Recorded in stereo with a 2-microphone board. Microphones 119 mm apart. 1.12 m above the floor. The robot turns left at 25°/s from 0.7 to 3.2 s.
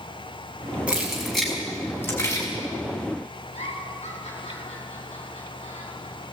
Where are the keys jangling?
10° right (ahead or behind), 6 m; by 2.5 s 30° left (ahead or behind), 6 m.